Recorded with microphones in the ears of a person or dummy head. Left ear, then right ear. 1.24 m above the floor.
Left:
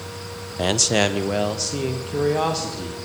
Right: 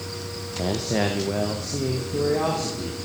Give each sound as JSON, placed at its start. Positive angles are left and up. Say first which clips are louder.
{"t": 0.6, "sound": "a man speaking", "louder": "left 6 dB", "side_deg": 55, "distance_m": 0.7}